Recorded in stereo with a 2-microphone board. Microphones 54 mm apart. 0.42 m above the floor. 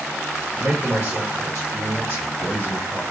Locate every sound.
0.5 s a man speaking: 45° right (ahead or behind), 1.9 m